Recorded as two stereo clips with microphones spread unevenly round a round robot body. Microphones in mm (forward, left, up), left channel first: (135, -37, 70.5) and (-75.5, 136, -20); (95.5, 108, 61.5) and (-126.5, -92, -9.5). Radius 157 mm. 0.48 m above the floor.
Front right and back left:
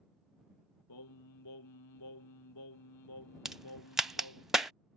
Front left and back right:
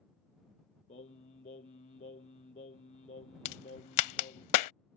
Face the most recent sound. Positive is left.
turn(degrees=45)